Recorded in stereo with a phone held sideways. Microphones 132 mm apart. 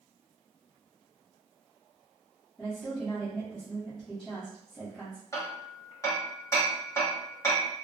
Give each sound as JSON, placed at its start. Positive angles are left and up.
{"t": 2.6, "sound": "a woman speaking", "side_deg": 5, "distance_m": 1.0}
{"t": 5.3, "sound": "hammering", "side_deg": 25, "distance_m": 0.9}